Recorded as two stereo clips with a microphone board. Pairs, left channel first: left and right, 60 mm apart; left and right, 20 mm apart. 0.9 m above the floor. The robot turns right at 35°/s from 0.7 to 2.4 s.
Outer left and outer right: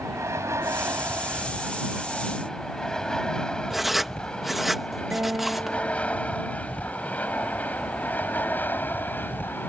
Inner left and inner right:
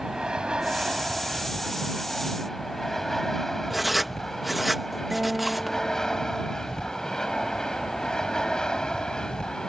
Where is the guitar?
30° right (ahead or behind).